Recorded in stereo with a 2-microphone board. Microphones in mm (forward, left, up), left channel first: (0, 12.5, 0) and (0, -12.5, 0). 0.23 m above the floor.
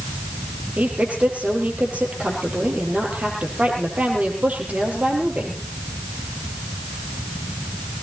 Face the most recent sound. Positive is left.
turn(degrees=-70)  # may be behind; listen again after turning